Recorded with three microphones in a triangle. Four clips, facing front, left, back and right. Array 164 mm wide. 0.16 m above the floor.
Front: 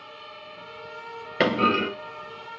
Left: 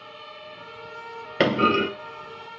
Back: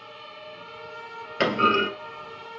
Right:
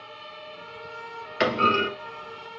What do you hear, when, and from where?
1.4 s a clunk: 65° left, 1.0 m